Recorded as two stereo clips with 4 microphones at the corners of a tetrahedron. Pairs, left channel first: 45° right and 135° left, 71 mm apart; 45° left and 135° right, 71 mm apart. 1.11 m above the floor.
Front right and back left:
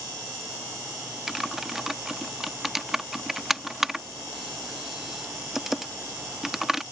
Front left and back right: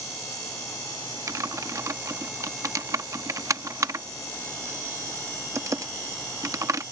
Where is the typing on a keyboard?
140° right.